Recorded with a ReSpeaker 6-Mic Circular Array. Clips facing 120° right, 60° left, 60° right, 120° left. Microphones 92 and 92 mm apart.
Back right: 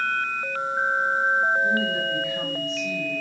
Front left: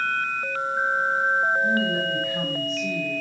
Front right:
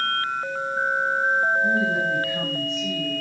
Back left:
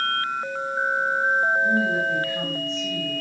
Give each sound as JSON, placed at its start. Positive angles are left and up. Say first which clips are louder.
{"t": 1.6, "sound": "a woman speaking", "louder": "front left 1 dB, even", "azimuth_deg": 10, "distance_m": 4.0}